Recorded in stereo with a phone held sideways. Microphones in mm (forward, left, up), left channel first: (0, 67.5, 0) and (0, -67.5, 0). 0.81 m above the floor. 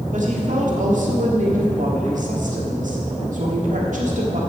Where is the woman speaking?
70° right (ahead or behind), 1.7 m.